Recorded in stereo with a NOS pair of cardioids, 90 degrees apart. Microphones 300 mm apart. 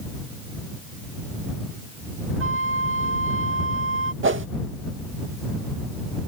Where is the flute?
45° right.